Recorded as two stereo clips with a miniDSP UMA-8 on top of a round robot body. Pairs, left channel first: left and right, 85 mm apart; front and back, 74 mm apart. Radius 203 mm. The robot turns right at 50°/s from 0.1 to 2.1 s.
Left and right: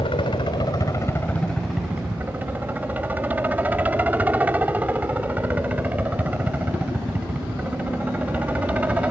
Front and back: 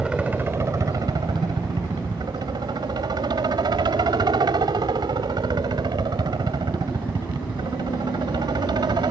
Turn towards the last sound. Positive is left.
turn(degrees=-165)